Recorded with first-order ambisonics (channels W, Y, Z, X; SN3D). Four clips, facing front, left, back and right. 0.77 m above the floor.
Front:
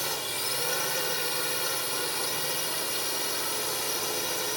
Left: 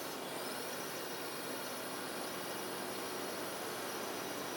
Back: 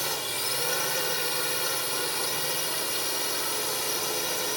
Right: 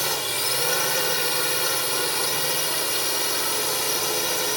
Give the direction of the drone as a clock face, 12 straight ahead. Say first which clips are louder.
Right 16 dB, back 1 dB; 3 o'clock.